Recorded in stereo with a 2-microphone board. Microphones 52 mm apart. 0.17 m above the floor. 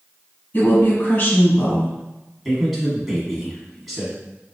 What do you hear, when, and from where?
0.5 s a woman speaking: 40° left (ahead or behind), 1.9 m
2.5 s a man speaking: 5° right (ahead or behind), 1.0 m